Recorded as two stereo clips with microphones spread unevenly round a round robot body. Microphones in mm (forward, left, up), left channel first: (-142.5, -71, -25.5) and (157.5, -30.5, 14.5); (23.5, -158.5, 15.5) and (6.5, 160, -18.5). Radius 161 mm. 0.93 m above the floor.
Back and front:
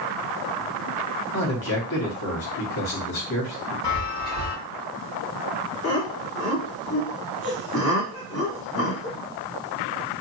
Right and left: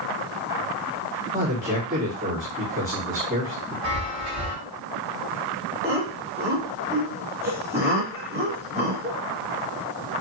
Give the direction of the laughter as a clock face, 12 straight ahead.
6 o'clock.